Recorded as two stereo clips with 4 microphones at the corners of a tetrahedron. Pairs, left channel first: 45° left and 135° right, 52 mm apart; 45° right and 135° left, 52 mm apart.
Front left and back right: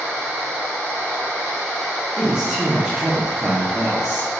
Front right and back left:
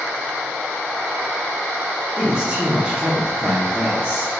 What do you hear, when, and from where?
2.2 s a man speaking: 170° left, 0.7 m